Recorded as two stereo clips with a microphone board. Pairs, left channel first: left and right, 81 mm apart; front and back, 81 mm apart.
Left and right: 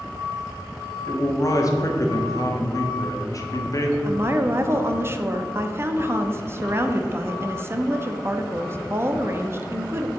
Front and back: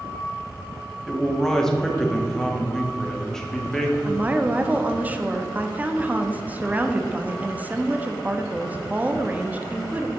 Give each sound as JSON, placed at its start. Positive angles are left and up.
{"t": 1.1, "sound": "a man speaking", "azimuth_deg": 80, "distance_m": 1.3}
{"t": 4.0, "sound": "a woman speaking", "azimuth_deg": -125, "distance_m": 0.7}